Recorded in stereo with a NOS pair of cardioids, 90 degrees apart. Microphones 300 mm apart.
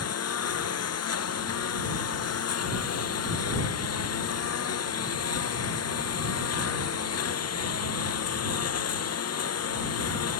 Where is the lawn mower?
55° left.